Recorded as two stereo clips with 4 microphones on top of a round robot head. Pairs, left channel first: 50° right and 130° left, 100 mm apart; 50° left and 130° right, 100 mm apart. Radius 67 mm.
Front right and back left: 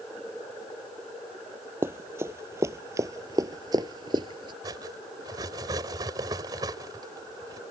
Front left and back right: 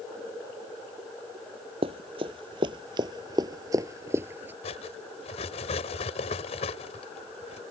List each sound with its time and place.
1.8 s running footsteps: 165° right; by 4.5 s 160° left
4.6 s cutlery clinking: 75° left